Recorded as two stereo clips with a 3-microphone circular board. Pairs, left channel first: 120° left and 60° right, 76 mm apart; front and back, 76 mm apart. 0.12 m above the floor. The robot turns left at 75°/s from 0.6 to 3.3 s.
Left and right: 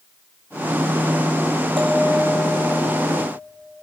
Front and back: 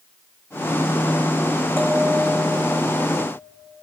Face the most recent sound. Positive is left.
turn(degrees=130)